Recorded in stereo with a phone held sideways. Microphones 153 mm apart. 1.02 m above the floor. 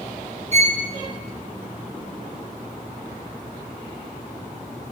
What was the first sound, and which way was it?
A violin, 50° right (ahead or behind).